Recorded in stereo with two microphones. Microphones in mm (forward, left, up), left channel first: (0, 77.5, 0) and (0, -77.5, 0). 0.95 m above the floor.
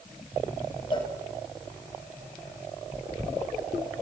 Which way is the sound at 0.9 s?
35° left (ahead or behind).